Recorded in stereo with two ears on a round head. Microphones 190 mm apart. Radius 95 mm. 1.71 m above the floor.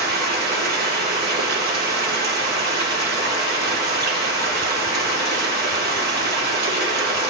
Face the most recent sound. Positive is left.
turn(degrees=-50)  # may be behind; listen again after turning